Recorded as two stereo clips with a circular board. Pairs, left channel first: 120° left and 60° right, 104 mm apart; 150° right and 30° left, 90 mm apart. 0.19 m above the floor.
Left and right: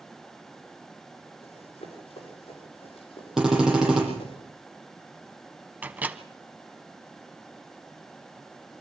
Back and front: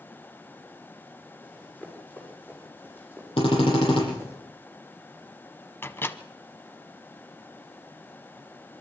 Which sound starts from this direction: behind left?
Running footsteps, at 1.4 s.